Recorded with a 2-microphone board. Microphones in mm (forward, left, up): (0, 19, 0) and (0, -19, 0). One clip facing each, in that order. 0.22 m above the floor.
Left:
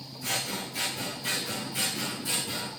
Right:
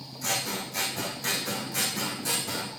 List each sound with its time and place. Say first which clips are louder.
0.2 s scissors: right 1 dB; 75° right (ahead or behind), 2 m